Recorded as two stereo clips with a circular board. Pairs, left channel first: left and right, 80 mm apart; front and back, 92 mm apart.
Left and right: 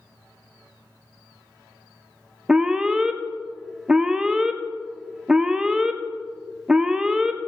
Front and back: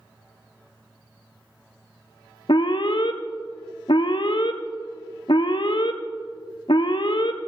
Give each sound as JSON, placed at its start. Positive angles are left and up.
{"t": 2.5, "sound": "an alarm", "azimuth_deg": -10, "distance_m": 0.7}